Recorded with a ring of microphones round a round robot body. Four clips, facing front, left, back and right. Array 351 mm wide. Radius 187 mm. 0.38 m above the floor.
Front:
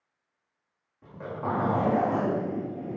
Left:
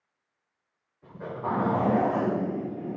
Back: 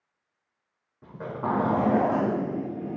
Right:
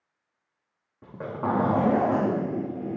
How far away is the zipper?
About 5 m.